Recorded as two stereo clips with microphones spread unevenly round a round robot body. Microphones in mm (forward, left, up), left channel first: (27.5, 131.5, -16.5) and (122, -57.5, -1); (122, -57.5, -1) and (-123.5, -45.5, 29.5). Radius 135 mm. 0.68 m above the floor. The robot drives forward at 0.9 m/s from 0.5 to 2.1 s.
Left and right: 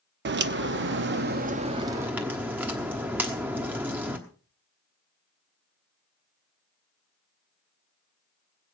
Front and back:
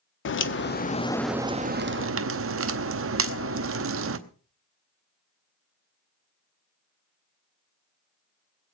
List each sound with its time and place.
0.2 s a crack: 30° right, 1.0 m; by 4.2 s 150° right, 1.0 m